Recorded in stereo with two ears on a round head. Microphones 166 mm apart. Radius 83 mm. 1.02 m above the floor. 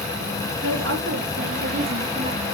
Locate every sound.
0.6 s a woman speaking: 70° right (ahead or behind), 2.5 m; by 2.5 s 40° right (ahead or behind), 1.4 m